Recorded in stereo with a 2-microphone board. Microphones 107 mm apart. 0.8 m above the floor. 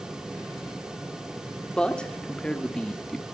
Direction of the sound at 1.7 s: 10° left (ahead or behind).